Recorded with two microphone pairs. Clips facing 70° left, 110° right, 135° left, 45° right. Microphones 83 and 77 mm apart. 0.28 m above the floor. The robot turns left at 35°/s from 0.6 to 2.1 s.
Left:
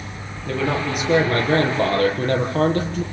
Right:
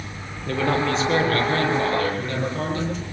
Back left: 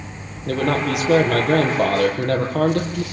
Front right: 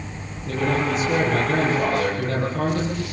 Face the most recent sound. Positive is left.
turn(degrees=110)